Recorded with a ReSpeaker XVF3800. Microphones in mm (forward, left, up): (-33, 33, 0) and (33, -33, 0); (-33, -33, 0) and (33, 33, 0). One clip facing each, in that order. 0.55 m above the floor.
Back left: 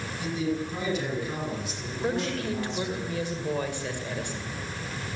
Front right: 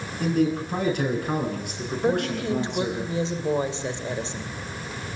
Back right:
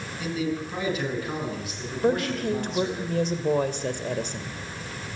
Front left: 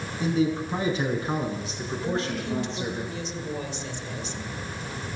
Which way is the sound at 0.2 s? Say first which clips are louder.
Front right 7 dB, front left 4 dB; 10° right.